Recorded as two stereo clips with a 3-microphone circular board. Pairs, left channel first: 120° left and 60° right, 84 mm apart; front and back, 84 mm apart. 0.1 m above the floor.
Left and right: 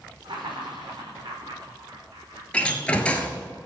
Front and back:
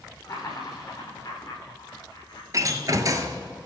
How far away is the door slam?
About 1.4 m.